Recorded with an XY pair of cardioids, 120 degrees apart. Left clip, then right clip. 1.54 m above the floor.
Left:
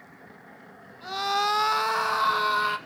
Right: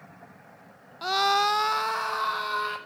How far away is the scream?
About 0.5 m.